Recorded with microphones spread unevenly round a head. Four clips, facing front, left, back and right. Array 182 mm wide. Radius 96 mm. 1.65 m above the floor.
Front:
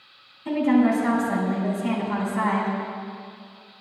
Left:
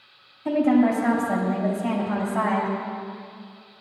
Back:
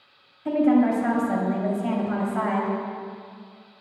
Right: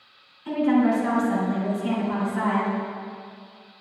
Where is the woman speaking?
130° left, 4 m.